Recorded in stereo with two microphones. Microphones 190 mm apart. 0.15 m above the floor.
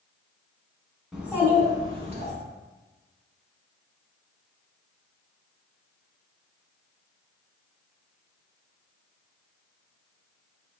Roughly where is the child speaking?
Centre.